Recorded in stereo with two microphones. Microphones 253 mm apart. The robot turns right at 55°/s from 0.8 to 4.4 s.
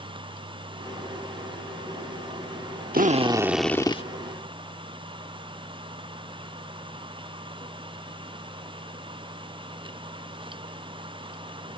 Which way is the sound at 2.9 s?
35° right.